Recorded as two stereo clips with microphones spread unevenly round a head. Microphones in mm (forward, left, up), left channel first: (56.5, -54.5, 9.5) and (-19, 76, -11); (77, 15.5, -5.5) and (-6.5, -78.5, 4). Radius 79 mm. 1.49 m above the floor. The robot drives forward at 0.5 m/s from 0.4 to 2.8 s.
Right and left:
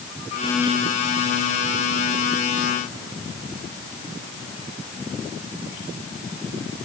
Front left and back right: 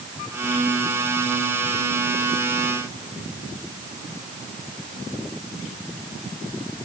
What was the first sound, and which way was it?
Only background noise.